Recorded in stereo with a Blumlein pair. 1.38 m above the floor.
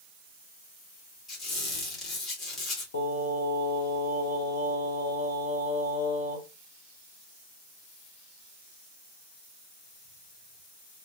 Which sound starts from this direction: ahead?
A squeak, at 1.3 s.